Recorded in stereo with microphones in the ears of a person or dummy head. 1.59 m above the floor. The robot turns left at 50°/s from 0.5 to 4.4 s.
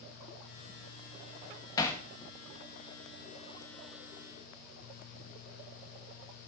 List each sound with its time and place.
1.8 s hammering: 20° left (ahead or behind), 1.5 m; by 2.0 s 5° left (ahead or behind), 1.5 m